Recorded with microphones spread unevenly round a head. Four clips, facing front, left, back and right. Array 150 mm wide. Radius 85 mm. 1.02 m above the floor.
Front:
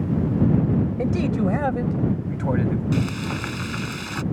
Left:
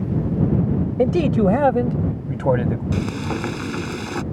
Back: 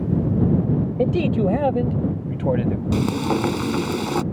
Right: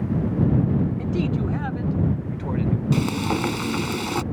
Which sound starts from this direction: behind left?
A man speaking, at 1.0 s.